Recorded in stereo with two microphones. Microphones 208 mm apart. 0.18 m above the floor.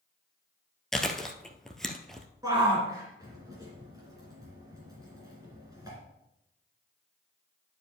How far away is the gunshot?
No gunshot in this recording.